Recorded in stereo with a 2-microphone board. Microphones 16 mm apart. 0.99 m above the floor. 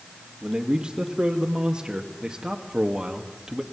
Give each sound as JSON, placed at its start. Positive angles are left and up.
{"t": 0.4, "sound": "a man speaking", "side_deg": -70, "distance_m": 1.7}